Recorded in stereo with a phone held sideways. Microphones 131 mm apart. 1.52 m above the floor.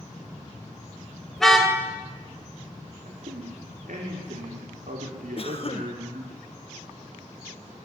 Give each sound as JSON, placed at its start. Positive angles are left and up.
{"t": 1.4, "sound": "a car horn", "side_deg": 5, "distance_m": 3.5}
{"t": 3.0, "sound": "a man speaking", "side_deg": -75, "distance_m": 5.5}
{"t": 5.4, "sound": "a cough", "side_deg": 45, "distance_m": 1.6}